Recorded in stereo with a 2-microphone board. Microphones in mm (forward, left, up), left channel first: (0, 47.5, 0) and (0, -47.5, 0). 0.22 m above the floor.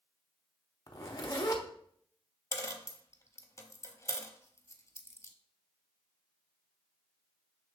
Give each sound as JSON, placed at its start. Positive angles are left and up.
{"t": 0.9, "sound": "a zipper", "side_deg": 40, "distance_m": 0.7}
{"t": 2.5, "sound": "a dropped coin", "side_deg": 30, "distance_m": 0.6}